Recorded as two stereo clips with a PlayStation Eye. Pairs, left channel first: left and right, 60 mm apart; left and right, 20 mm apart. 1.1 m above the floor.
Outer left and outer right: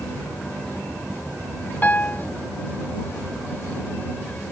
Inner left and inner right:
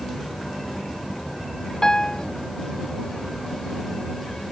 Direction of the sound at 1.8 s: 30° left (ahead or behind).